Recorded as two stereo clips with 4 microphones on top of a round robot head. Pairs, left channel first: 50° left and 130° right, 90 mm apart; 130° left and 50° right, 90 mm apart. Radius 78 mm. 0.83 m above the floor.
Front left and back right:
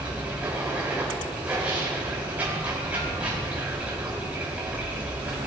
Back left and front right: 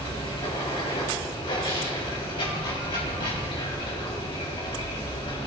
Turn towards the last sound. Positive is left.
turn(degrees=155)